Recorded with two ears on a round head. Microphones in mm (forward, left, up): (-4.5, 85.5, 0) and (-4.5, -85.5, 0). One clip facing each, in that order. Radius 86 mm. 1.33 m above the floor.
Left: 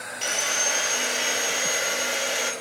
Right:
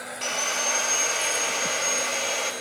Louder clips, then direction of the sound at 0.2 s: Even; 15° left (ahead or behind).